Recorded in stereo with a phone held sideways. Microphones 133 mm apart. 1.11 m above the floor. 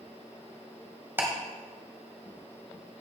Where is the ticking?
15° right (ahead or behind), 1.7 m.